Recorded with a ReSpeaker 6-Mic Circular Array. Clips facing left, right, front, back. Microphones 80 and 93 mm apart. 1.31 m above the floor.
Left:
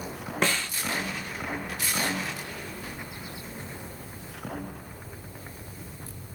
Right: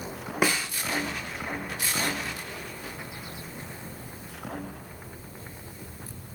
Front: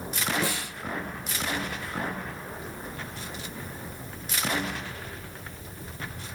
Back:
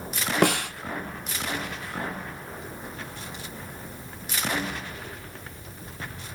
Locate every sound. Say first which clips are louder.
0.4 s a snare drum: right 1 dB, back 9 dB; 170° right, 0.6 m